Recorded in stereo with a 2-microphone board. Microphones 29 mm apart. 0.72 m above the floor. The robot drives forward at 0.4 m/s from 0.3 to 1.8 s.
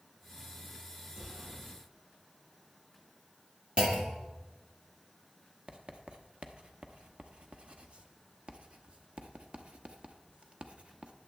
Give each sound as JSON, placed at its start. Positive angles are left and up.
{"t": 1.1, "sound": "an explosion", "side_deg": -45, "distance_m": 5.5}
{"t": 3.8, "sound": "a clunk", "side_deg": -35, "distance_m": 1.8}
{"t": 5.7, "sound": "writing", "side_deg": -35, "distance_m": 1.0}